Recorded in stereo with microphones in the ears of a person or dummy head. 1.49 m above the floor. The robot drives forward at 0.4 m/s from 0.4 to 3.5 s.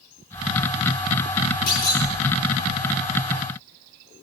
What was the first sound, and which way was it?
A clunk, 50° left (ahead or behind).